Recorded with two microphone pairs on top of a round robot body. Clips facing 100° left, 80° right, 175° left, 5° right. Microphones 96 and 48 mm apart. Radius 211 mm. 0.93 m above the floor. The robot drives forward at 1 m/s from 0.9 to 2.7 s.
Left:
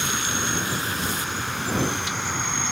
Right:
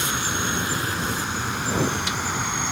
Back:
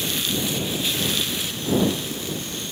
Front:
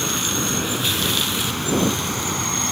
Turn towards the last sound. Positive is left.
turn(degrees=5)